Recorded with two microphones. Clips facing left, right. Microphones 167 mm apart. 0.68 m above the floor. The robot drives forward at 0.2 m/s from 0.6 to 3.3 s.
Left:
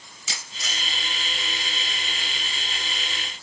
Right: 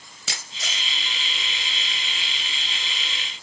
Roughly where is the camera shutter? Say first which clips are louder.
Right 1 dB; right.